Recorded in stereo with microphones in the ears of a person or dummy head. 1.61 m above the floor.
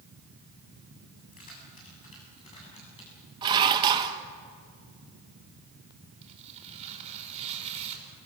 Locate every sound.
1.2 s keys jangling: 45° left (ahead or behind), 7.5 m; by 3.3 s 30° left (ahead or behind), 8 m
3.4 s dishes clattering: 20° right (ahead or behind), 1.1 m
6.2 s tearing paper: 30° right (ahead or behind), 5.5 m